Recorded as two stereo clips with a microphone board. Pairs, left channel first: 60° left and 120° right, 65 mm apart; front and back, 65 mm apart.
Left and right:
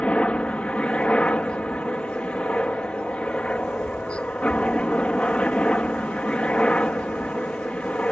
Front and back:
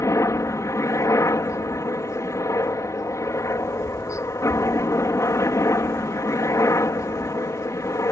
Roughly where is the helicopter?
Ahead.